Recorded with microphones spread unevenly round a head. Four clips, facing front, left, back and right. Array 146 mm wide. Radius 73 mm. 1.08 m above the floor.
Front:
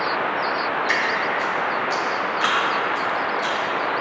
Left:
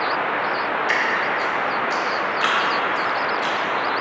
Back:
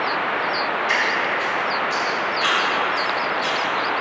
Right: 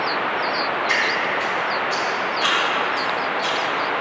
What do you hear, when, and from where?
0.9 s dripping: 45° left, 1.8 m